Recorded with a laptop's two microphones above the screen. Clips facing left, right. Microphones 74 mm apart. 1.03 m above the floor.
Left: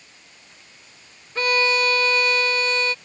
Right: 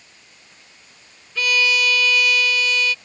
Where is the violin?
35° left (ahead or behind).